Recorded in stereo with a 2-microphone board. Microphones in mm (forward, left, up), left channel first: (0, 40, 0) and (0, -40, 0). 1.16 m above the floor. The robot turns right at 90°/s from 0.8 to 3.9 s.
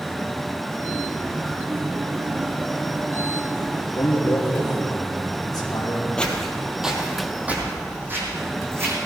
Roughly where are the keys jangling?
I don't hear keys jangling.